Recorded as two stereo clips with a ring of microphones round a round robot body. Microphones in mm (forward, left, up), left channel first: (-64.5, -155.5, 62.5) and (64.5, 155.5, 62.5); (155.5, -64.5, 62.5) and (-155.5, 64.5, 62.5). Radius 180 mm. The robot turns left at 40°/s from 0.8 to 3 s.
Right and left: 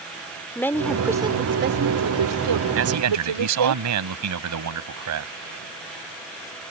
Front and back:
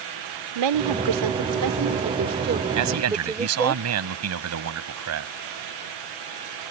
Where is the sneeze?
I don't hear a sneeze.